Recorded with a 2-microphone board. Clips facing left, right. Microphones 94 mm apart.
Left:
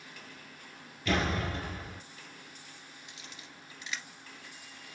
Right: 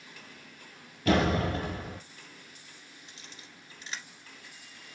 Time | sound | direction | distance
1.1 | a door slam | 45° right (ahead or behind) | 3 m
3.1 | a camera shutter | 35° right (ahead or behind) | 1.9 m